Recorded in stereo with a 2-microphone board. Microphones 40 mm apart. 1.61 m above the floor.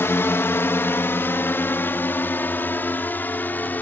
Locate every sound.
0.0 s a drone: 80° left; by 3.8 s 50° left (ahead or behind)